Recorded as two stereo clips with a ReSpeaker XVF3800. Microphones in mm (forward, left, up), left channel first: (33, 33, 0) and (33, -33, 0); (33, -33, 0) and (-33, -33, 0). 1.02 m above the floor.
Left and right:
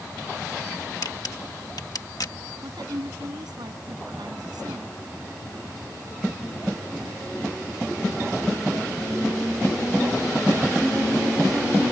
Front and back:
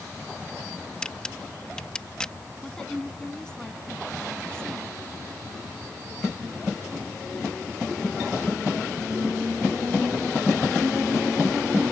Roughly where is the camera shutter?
Left.